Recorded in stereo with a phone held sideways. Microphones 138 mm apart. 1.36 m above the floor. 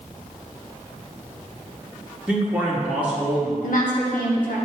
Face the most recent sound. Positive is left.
turn(degrees=80)